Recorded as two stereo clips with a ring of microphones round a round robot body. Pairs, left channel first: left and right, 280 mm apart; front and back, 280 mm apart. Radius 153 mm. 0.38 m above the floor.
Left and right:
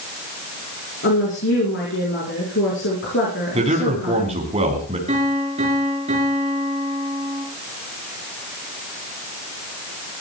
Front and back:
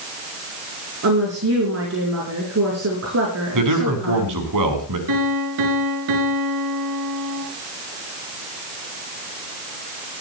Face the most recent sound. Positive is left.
turn(degrees=-160)